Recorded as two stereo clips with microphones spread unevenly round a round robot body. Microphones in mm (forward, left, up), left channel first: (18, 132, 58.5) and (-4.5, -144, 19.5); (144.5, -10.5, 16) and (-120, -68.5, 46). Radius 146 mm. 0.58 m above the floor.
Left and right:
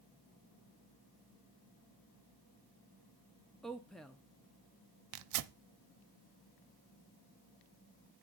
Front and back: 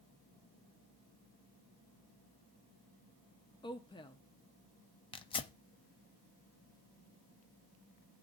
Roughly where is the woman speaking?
Ahead.